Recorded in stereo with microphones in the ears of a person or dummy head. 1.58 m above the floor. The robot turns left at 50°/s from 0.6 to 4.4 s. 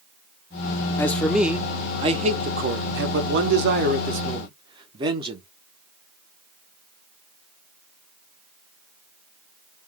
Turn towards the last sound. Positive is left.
turn(degrees=-145)